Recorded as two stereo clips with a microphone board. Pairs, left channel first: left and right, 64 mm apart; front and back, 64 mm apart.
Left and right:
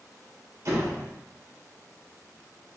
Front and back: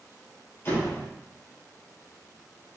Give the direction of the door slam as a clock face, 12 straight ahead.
2 o'clock.